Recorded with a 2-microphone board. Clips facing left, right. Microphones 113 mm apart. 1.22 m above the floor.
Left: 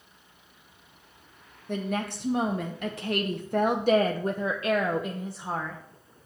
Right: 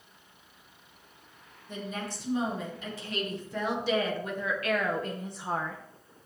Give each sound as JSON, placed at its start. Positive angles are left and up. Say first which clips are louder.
{"t": 1.7, "sound": "a woman speaking", "louder": "left 7 dB", "side_deg": 70, "distance_m": 1.6}